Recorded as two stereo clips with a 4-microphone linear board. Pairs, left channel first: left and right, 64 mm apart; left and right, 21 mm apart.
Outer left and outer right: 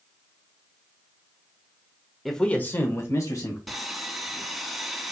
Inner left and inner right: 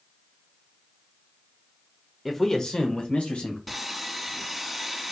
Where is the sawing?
Centre (ahead or behind), 1.2 m.